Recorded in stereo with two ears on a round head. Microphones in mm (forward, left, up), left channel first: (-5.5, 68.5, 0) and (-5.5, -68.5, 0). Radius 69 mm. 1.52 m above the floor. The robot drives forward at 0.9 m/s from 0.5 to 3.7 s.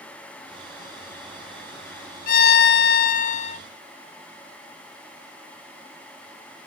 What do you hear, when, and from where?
2.3 s a violin: 55° left (ahead or behind), 0.9 m; by 3.6 s 40° left (ahead or behind), 1.1 m